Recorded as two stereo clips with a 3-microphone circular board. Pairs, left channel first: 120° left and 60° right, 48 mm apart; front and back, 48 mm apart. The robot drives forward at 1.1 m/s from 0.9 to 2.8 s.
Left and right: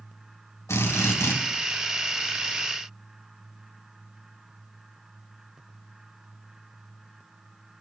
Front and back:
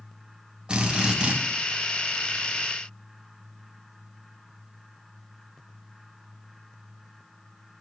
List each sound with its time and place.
0.7 s a drill: 115° left, 3 m; by 1.4 s 120° left, 3 m